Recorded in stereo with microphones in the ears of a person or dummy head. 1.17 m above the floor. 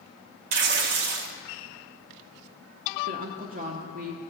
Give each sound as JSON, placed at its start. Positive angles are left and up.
{"t": 0.5, "sound": "tearing paper", "side_deg": -65, "distance_m": 0.8}
{"t": 3.1, "sound": "a woman speaking", "side_deg": -50, "distance_m": 1.0}